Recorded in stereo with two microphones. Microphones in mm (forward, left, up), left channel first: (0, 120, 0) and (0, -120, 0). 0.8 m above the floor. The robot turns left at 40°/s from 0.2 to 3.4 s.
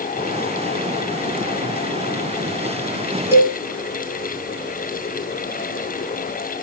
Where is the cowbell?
10° right (ahead or behind), 3 m; by 3.6 s 5° right (ahead or behind), 3 m.